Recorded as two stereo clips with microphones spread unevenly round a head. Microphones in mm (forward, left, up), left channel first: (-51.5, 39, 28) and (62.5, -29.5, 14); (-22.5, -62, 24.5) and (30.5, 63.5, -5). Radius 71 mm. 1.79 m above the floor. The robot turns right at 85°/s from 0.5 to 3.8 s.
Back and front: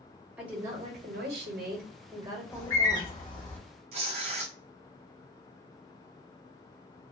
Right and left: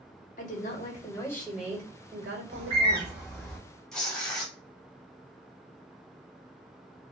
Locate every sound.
0.4 s a woman speaking: 115° right, 1.0 m; by 3.1 s 110° left, 1.0 m
2.5 s a bird: 95° left, 0.8 m; by 3.6 s 175° right, 0.8 m
3.9 s tearing paper: 50° right, 0.6 m